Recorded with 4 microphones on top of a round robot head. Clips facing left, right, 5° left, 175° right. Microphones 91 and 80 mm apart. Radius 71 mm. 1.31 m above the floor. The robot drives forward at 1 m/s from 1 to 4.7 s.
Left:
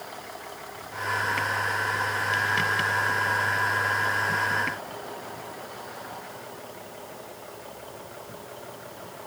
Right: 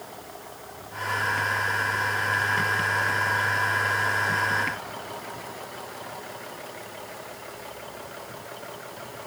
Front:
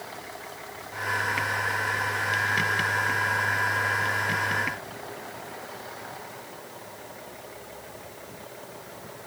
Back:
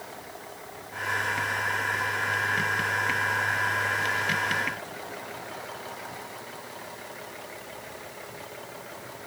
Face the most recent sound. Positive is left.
No sound to turn to.